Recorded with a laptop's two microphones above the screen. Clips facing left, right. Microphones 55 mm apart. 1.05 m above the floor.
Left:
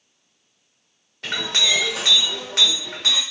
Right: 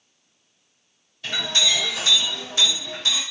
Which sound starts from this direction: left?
A clink, at 1.2 s.